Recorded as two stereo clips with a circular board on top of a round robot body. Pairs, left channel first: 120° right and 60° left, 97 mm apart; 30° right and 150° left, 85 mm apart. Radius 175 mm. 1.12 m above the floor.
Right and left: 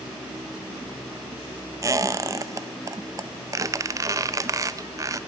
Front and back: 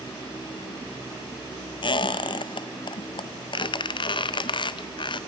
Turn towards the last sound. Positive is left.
turn(degrees=0)